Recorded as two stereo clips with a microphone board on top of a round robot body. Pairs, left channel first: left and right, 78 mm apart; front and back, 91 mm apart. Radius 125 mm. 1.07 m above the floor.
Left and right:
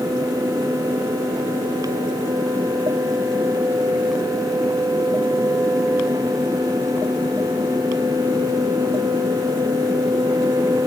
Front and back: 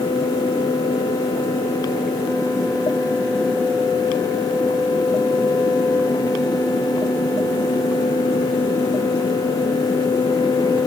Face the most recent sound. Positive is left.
No sound to turn to.